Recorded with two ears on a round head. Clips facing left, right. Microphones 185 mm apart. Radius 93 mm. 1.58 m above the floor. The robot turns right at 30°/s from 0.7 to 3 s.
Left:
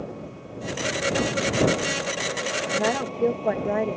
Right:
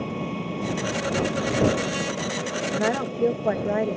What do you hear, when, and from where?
0.0 s an engine running: 85° right; by 4.0 s 15° right
2.7 s a woman speaking: 10° right (ahead or behind); by 4.0 s centre (ahead or behind)